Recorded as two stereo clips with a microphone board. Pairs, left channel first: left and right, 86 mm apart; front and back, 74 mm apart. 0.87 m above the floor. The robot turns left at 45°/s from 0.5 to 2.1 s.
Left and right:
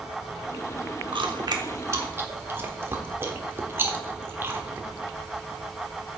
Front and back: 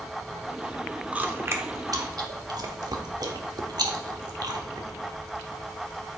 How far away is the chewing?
About 1.0 m.